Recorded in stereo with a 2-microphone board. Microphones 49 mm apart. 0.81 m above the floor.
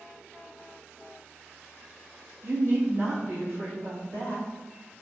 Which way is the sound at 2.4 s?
40° right (ahead or behind).